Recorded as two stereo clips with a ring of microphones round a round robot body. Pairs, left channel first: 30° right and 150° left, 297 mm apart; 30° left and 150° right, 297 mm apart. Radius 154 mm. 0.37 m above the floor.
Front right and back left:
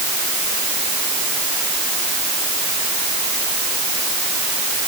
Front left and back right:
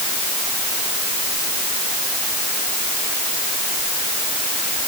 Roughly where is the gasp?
I don't hear a gasp.